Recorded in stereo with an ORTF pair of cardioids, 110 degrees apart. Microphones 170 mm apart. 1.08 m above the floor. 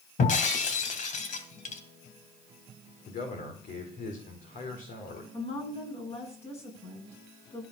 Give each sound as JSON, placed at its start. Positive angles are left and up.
{"t": 0.2, "sound": "breaking glass", "azimuth_deg": 50, "distance_m": 2.0}
{"t": 3.1, "sound": "a man speaking", "azimuth_deg": 55, "distance_m": 4.0}
{"t": 5.3, "sound": "a woman speaking", "azimuth_deg": 40, "distance_m": 9.5}